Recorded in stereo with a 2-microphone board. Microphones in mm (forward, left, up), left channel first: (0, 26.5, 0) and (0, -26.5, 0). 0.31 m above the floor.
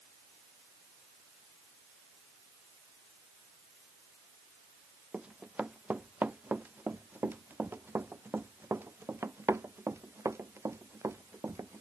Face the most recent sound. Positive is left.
turn(degrees=-60)  # may be behind; listen again after turning